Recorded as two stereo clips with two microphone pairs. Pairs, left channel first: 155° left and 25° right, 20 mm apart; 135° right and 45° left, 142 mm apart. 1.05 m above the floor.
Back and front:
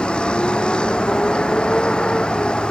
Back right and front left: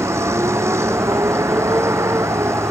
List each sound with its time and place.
0.0 s a vehicle: 115° left